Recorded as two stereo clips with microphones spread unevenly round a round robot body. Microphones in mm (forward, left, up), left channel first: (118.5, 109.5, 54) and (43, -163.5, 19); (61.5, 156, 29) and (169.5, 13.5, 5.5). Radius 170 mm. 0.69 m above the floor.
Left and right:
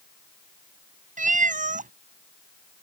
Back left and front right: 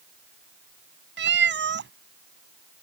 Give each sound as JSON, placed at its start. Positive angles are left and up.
{"t": 1.2, "sound": "a cat meowing", "azimuth_deg": -40}